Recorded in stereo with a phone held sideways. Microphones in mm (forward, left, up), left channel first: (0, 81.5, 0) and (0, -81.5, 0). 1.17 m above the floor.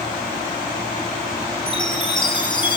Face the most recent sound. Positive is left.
turn(degrees=30)  # may be behind; listen again after turning